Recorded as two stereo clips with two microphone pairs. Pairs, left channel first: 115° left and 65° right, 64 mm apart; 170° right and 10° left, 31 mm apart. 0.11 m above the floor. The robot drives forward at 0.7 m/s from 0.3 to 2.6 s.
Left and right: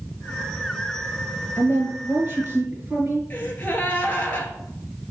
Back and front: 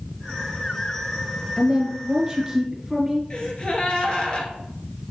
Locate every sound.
1.6 s a woman speaking: 40° right, 1.9 m; by 3.2 s 70° right, 1.6 m
3.3 s a gasp: 160° left, 0.9 m